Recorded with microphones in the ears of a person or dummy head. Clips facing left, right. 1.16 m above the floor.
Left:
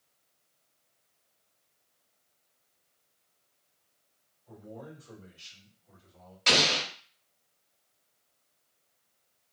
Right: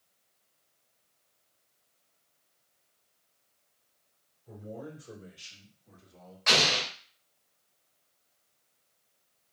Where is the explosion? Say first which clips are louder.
Left 1 dB; 40° left (ahead or behind), 0.8 m.